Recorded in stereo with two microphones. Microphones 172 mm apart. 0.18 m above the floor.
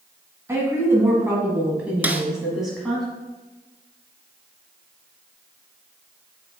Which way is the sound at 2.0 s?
10° right (ahead or behind).